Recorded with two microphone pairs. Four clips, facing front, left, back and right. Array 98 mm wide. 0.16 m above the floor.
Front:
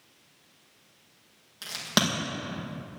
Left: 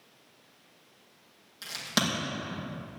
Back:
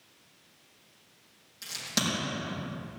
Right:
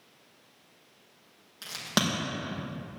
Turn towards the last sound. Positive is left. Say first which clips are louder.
# right 1 dB, front 6 dB
turn(degrees=-40)